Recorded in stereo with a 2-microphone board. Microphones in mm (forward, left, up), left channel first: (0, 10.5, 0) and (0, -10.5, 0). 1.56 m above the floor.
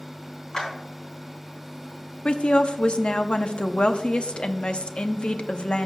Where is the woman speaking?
60° left (ahead or behind), 0.6 m.